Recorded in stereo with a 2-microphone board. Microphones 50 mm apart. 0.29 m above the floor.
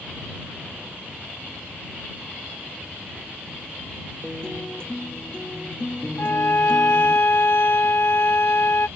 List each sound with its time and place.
4.2 s a guitar: 20° left (ahead or behind)
6.2 s a violin: 55° left (ahead or behind)